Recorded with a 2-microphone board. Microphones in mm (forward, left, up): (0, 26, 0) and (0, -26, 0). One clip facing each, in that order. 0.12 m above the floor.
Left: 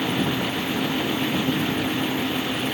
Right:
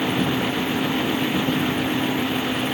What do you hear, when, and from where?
Only background noise.